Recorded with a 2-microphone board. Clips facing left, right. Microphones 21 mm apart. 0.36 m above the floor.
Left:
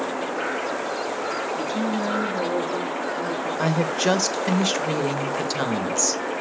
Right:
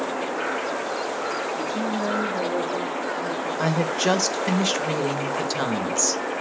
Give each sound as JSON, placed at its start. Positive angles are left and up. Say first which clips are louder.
{"t": 1.6, "sound": "a woman speaking", "louder": "left 1 dB", "side_deg": 40, "distance_m": 3.5}
{"t": 3.6, "sound": "a woman speaking", "louder": "even", "side_deg": 5, "distance_m": 1.0}